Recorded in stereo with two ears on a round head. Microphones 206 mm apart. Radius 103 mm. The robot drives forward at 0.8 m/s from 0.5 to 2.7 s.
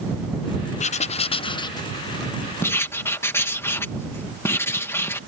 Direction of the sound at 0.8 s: 30° left (ahead or behind).